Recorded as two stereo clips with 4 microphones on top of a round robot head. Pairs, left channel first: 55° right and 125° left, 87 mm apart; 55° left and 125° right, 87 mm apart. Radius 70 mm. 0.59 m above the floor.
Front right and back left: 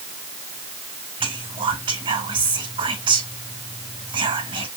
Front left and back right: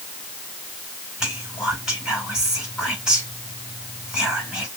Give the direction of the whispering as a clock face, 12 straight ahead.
7 o'clock.